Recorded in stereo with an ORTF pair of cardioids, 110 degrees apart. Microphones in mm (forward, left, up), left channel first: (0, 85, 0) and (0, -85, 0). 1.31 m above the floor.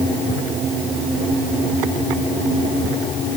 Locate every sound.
Only background noise.